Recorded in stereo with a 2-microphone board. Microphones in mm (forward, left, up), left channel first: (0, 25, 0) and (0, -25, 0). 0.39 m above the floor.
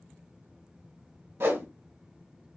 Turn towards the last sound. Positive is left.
turn(degrees=-55)  # may be behind; listen again after turning